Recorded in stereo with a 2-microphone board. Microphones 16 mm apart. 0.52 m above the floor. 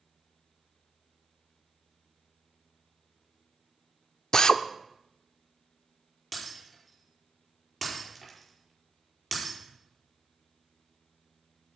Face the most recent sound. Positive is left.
turn(degrees=0)  # may be behind; listen again after turning